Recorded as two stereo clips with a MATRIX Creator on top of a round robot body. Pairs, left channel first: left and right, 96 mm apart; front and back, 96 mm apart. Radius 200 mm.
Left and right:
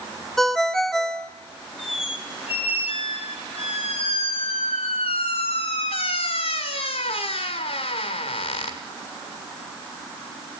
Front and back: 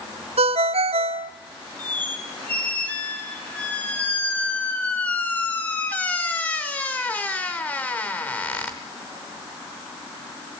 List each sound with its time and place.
0.4 s a ringtone: 175° left, 0.9 m
1.8 s a squeak: 75° left, 0.9 m